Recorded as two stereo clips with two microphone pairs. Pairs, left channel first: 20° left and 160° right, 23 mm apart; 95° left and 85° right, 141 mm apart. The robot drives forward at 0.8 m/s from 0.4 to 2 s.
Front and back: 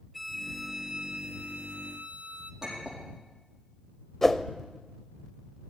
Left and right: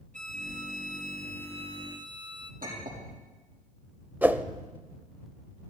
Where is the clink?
90° right, 6 m.